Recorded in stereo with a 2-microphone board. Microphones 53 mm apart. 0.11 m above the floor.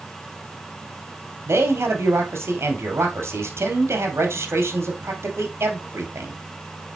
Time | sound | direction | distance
1.5 | a man speaking | 55° right (ahead or behind) | 2 m